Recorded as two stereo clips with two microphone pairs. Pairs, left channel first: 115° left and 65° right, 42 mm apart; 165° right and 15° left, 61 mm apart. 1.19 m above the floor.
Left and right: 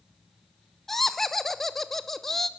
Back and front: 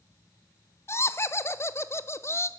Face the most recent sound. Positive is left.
turn(degrees=-160)